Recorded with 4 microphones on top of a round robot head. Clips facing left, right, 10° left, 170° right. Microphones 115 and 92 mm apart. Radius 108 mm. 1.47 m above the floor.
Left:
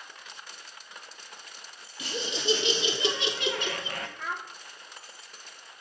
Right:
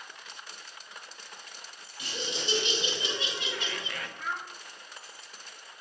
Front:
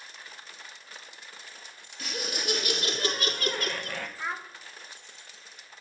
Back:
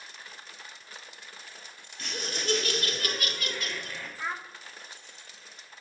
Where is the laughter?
95° left, 1.9 m; by 4.1 s 35° left, 1.2 m.